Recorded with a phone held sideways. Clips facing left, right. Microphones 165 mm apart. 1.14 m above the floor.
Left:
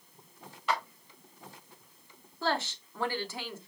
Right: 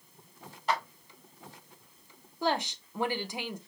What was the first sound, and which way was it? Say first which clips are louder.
A clap: right 1 dB; 40° right (ahead or behind).